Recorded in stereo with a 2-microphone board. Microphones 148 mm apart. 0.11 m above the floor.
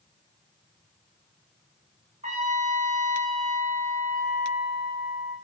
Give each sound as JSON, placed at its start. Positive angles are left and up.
{"t": 2.2, "sound": "a trumpet", "side_deg": -50, "distance_m": 7.5}